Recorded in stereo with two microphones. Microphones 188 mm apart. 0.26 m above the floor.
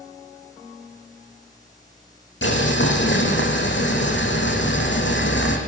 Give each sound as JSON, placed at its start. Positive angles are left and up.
{"t": 2.4, "sound": "boiling", "side_deg": 65, "distance_m": 6.0}